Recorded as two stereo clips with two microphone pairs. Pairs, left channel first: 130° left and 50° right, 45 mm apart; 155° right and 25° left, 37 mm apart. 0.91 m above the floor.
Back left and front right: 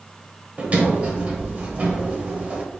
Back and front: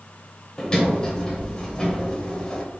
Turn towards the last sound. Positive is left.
turn(degrees=-100)